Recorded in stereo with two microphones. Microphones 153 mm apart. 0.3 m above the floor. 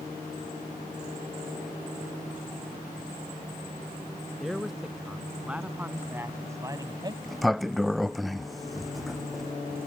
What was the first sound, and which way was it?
A man speaking, centre (ahead or behind).